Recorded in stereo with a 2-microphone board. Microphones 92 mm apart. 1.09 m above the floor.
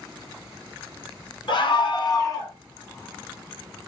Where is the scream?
60° left (ahead or behind), 0.9 m; by 2.5 s 30° left (ahead or behind), 1.0 m.